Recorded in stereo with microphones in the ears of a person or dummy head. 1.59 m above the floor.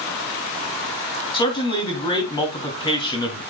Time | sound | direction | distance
1.3 | a man speaking | 30° left (ahead or behind) | 3 m